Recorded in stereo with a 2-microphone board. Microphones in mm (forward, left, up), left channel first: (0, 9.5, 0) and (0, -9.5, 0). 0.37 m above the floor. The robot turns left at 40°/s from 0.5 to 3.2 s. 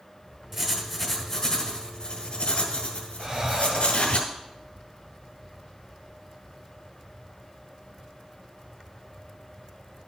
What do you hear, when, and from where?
0.5 s writing: 170° right, 1.9 m; by 4.2 s 85° left, 1.9 m
3.2 s breathing: 35° right (ahead or behind), 1.2 m